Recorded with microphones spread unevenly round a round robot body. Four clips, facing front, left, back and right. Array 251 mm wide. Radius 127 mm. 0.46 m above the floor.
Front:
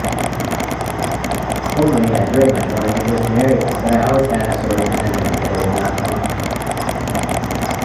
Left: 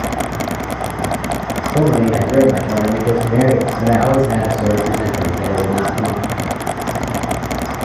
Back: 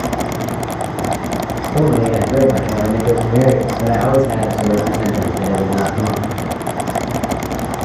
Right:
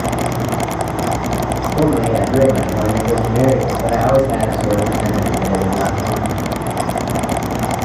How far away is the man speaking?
About 7.5 m.